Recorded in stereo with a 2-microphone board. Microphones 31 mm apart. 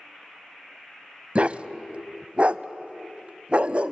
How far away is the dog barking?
About 0.5 m.